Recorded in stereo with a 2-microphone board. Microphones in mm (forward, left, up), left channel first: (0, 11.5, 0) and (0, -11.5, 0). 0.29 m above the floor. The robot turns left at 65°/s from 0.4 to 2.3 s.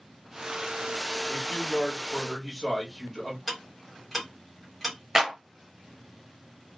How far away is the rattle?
No rattle in this recording.